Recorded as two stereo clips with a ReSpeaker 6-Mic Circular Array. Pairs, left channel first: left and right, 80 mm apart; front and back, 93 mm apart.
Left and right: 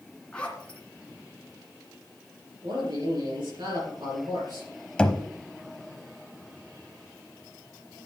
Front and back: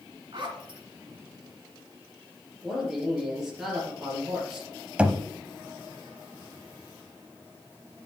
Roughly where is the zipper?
Behind.